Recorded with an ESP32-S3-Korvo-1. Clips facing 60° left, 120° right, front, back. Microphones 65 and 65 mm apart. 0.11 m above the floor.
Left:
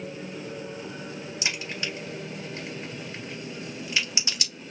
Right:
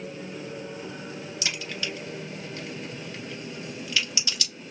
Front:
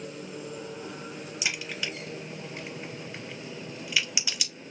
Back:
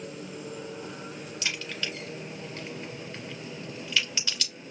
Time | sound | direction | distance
1.4 | a crack | 60° left | 1.5 m